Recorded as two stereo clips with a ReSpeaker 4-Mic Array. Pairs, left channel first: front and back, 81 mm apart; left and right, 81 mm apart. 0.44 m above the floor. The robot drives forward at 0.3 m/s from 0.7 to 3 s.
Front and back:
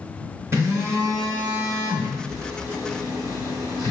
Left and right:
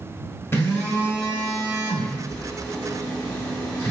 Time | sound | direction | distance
0.5 | a phone buzzing | 135° left | 1.6 m